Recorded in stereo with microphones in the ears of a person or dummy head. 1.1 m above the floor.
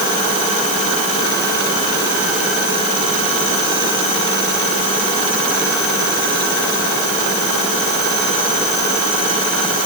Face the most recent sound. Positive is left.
No sound to turn to.